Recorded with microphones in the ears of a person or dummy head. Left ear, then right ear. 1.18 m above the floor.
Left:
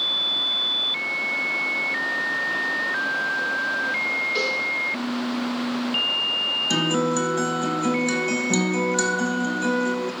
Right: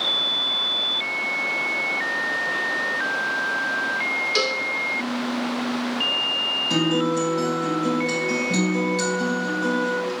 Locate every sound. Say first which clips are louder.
4.3 s a cowbell: right 1 dB; 35° right (ahead or behind), 0.6 m
6.7 s a guitar: right 1 dB; 40° left (ahead or behind), 0.9 m